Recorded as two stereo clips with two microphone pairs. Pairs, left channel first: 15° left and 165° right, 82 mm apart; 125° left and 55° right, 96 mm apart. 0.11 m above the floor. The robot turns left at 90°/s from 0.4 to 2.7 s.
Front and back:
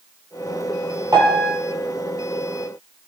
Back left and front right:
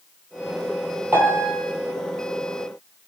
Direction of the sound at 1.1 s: 125° right.